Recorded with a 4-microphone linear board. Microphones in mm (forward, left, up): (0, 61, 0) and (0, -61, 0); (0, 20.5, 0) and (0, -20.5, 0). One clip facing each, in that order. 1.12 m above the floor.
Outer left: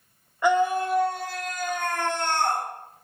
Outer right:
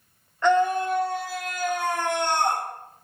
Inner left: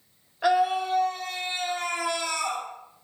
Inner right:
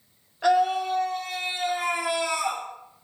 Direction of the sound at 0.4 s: 10° left (ahead or behind).